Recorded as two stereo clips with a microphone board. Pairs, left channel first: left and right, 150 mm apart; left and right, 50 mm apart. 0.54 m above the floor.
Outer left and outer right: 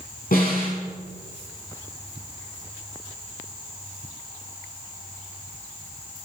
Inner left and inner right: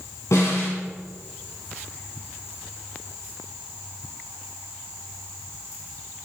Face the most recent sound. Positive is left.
turn(degrees=75)  # may be behind; listen again after turning